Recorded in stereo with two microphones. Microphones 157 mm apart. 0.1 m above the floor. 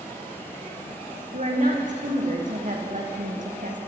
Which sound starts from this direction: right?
A woman speaking, at 1.3 s.